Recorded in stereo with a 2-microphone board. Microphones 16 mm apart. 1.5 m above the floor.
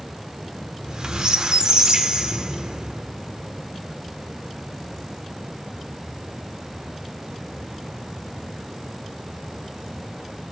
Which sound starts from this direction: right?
A squeak, at 0.7 s.